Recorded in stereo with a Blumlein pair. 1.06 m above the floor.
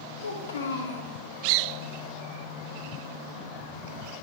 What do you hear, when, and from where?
0.2 s a child speaking: 65° left, 1.0 m